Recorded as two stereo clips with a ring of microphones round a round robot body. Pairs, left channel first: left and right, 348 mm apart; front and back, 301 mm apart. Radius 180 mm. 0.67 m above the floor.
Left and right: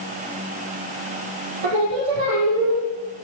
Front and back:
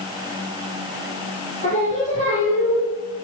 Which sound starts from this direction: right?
Singing, at 1.6 s.